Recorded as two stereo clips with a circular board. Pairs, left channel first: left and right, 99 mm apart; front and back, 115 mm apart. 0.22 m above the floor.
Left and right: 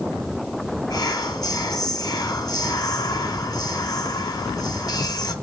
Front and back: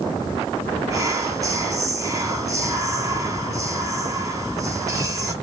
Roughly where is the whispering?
Behind left.